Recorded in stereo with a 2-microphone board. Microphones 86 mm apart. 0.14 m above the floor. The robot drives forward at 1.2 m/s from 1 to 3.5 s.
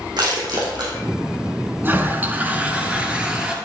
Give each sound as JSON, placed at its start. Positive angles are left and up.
{"t": 0.2, "sound": "crushing", "side_deg": -60, "distance_m": 4.5}
{"t": 1.8, "sound": "a toilet flushing", "side_deg": -25, "distance_m": 1.3}